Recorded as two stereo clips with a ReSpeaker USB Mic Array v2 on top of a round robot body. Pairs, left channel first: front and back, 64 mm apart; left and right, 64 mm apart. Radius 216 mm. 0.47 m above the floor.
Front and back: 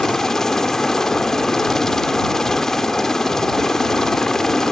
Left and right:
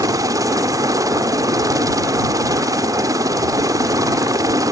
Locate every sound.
0.0 s a helicopter: 80° right